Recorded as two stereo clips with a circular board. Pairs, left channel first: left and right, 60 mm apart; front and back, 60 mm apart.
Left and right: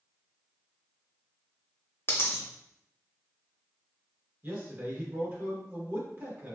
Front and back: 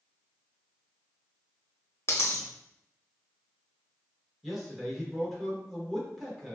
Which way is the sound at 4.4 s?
95° right.